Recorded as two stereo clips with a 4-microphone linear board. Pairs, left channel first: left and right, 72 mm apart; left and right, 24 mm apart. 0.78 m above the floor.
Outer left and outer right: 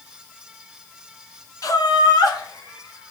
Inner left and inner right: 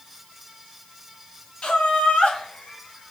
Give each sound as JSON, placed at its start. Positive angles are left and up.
{"t": 1.6, "sound": "laughter", "side_deg": 50, "distance_m": 0.6}